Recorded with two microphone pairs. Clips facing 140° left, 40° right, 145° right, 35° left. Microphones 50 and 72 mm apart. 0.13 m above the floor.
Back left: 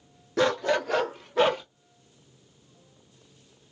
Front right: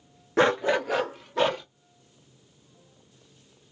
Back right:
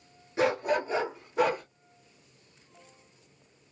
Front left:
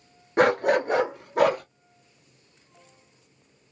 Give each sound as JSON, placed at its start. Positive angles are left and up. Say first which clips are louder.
{"t": 0.4, "sound": "a dog barking", "louder": "front right 2 dB, front left 6 dB", "azimuth_deg": 10, "distance_m": 0.5}